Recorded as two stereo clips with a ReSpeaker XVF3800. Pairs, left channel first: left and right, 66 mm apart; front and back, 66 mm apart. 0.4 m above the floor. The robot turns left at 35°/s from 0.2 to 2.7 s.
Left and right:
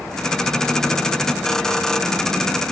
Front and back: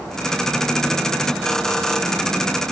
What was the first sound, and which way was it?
Only background noise.